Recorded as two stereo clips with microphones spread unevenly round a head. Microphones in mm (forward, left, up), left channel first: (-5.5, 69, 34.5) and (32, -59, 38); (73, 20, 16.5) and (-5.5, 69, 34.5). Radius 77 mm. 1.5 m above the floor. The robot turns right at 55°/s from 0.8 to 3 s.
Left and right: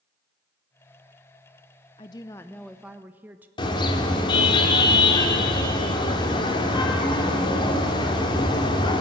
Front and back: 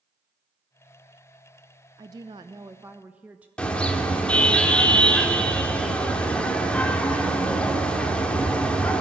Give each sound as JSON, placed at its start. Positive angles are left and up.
{"t": 2.0, "sound": "a woman speaking", "azimuth_deg": 155, "distance_m": 0.5}
{"t": 3.6, "sound": "a car horn", "azimuth_deg": 50, "distance_m": 2.5}